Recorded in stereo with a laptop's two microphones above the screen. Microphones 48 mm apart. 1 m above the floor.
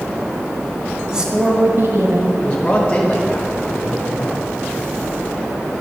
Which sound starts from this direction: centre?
A woman speaking, at 1.1 s.